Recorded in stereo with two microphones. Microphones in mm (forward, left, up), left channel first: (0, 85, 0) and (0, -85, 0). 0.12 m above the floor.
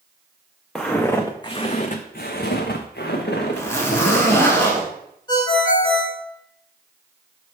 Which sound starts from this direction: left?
A ringtone, at 5.3 s.